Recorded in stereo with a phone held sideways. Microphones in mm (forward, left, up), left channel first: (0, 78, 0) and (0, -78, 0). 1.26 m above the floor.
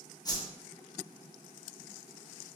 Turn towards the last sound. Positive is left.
turn(degrees=25)  # may be behind; listen again after turning